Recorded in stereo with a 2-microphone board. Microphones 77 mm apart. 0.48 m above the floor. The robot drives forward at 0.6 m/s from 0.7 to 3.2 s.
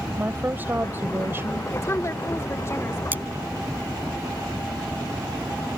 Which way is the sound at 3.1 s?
20° right (ahead or behind).